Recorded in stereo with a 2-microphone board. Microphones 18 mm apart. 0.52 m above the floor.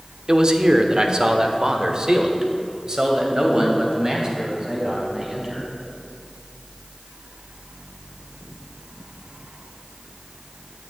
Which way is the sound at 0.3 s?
45° right (ahead or behind).